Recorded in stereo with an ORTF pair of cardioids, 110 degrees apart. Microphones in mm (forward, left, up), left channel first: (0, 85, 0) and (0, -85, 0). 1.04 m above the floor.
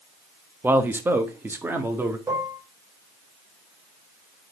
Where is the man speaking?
10° right, 0.9 m; by 2.2 s 15° right, 1.8 m.